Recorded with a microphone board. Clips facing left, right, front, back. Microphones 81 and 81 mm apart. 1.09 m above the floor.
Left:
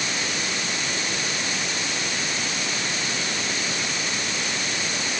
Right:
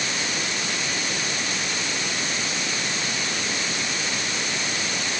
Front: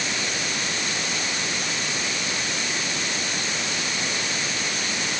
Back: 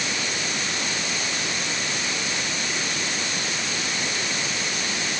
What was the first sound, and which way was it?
Only background noise.